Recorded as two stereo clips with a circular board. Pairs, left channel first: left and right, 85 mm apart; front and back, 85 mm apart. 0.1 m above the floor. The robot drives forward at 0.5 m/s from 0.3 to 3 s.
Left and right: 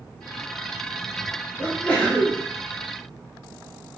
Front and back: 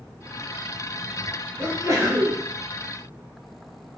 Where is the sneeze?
150° left, 1.2 m; by 2.4 s 165° left, 1.5 m.